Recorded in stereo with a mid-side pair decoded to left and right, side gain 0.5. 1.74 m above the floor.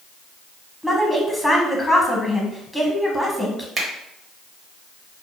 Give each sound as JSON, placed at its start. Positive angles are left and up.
{"t": 0.8, "sound": "a woman speaking", "azimuth_deg": 0, "distance_m": 1.1}
{"t": 3.8, "sound": "a finger snap", "azimuth_deg": -45, "distance_m": 0.9}